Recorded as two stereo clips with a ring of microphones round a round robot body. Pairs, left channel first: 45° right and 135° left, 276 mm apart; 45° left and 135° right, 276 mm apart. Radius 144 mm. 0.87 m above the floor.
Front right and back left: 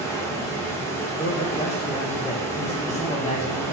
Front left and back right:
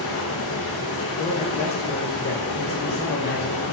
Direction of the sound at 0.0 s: 35° left.